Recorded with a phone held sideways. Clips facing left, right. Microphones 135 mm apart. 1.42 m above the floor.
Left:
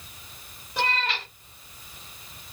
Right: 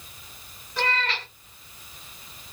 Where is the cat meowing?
20° left (ahead or behind), 1.4 m.